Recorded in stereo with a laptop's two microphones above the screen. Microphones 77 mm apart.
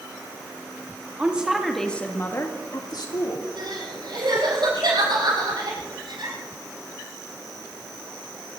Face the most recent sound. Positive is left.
turn(degrees=-75)  # may be behind; listen again after turning